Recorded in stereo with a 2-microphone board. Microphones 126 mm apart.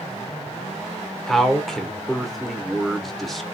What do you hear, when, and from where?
1.3 s a man speaking: centre (ahead or behind), 0.9 m